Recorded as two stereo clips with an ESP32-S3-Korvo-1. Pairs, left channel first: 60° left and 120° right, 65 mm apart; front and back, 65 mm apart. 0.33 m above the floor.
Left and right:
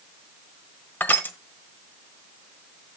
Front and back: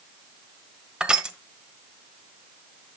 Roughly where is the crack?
No crack in this recording.